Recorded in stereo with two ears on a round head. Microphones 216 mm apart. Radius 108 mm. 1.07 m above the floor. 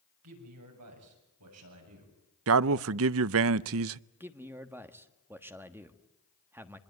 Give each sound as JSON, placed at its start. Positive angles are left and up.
{"t": 0.2, "sound": "a man speaking", "side_deg": -75, "distance_m": 7.5}
{"t": 2.5, "sound": "a man speaking", "side_deg": -60, "distance_m": 0.6}
{"t": 4.2, "sound": "a man speaking", "side_deg": -10, "distance_m": 1.4}